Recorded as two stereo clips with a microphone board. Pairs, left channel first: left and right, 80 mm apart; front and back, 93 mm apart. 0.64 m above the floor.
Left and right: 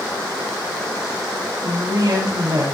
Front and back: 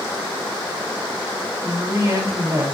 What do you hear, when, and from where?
1.6 s a woman speaking: 130° right, 3 m